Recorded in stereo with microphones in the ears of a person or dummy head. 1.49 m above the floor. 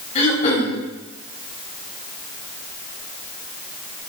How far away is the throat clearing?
About 4.5 m.